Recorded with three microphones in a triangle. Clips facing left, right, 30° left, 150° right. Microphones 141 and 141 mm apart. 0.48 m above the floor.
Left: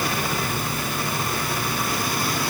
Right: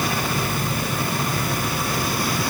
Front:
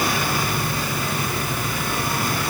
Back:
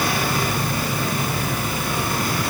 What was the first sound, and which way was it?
Only background noise.